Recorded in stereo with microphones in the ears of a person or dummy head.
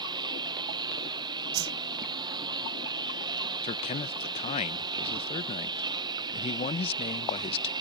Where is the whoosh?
85° right.